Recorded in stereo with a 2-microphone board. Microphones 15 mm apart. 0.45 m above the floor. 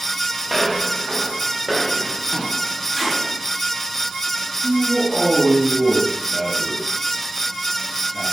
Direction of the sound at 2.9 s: 10° right (ahead or behind).